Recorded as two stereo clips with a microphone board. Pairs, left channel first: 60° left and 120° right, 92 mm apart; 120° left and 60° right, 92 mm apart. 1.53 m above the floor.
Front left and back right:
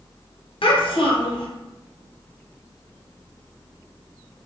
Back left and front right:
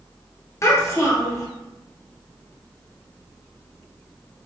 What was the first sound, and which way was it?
A child speaking, 65° left.